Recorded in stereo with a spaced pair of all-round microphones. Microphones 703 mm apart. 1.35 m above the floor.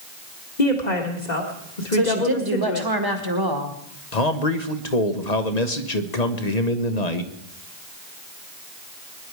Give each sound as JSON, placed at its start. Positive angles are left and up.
{"t": 0.6, "sound": "a woman speaking", "side_deg": 70, "distance_m": 1.9}
{"t": 1.9, "sound": "a woman speaking", "side_deg": -30, "distance_m": 1.9}
{"t": 4.1, "sound": "a man speaking", "side_deg": 60, "distance_m": 1.2}